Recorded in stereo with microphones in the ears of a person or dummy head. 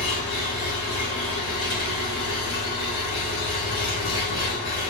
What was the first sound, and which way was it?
An engine running, 55° left (ahead or behind).